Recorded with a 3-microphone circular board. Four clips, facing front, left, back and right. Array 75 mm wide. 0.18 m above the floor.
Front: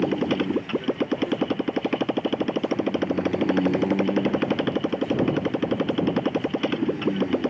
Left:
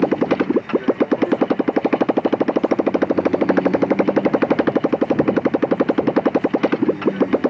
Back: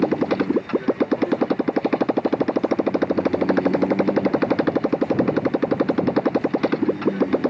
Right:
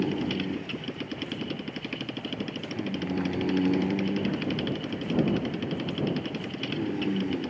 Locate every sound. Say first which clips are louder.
0.0 s a motorcycle: left 12 dB, back 3 dB; 105° left